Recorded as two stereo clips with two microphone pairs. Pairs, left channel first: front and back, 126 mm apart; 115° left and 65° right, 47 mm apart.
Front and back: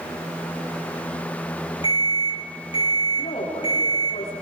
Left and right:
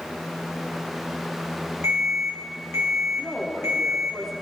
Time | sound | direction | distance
1.8 | an alarm | 45° right | 7.5 m
3.2 | a woman speaking | 35° left | 9.5 m